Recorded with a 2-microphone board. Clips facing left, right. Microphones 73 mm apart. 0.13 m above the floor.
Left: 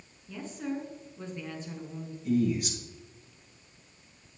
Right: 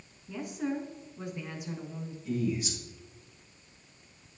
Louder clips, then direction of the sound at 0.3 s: Right 2 dB; 15° right (ahead or behind).